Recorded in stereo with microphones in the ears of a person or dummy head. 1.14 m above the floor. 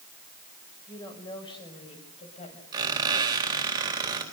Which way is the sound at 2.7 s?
20° right (ahead or behind).